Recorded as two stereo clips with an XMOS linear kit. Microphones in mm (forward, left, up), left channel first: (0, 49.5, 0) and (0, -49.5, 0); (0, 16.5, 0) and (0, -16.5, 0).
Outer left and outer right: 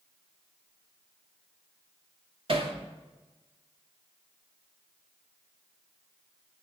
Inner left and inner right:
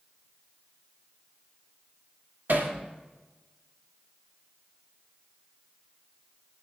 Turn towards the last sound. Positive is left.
turn(degrees=-60)  # may be behind; listen again after turning